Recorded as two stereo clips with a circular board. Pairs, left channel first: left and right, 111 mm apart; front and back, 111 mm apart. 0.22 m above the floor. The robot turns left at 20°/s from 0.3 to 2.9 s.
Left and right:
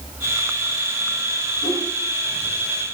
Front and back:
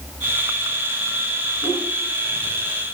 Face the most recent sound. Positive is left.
turn(degrees=15)